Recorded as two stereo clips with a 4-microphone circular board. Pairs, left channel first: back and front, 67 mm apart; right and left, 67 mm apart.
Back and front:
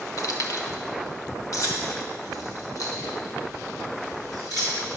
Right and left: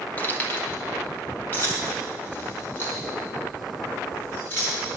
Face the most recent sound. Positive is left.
turn(degrees=-145)